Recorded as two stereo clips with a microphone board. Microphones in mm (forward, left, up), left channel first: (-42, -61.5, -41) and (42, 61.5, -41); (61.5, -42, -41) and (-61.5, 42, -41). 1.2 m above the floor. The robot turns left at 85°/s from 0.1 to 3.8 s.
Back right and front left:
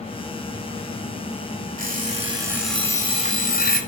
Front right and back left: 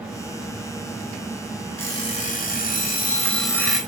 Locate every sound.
1.8 s an alarm clock: 40° left, 2 m; by 3.8 s 130° right, 2 m